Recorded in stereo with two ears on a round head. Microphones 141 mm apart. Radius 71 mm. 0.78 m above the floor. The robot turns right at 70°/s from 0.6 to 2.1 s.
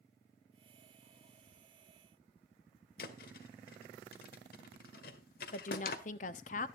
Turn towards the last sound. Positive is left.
turn(degrees=50)  # may be behind; listen again after turning